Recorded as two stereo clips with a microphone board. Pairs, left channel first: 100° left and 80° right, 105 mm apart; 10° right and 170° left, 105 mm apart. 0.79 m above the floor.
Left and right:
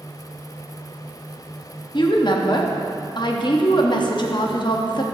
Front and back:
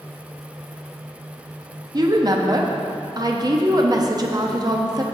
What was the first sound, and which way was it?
A woman speaking, 125° left.